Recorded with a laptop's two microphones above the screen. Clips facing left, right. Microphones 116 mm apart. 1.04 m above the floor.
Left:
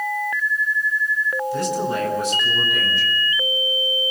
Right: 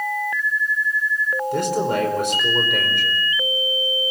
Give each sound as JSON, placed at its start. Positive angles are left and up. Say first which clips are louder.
{"t": 1.5, "sound": "a man speaking", "louder": "right 3 dB", "side_deg": -65, "distance_m": 4.5}